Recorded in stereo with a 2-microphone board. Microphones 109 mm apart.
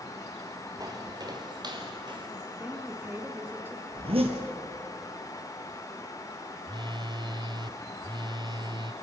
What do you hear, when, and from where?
0.8 s footsteps: 35° right (ahead or behind), 3 m; by 2.3 s 45° right (ahead or behind), 4 m
2.6 s a woman speaking: 20° right (ahead or behind), 3 m
3.9 s a zipper: 60° right (ahead or behind), 4 m
6.7 s a phone buzzing: 45° right (ahead or behind), 0.6 m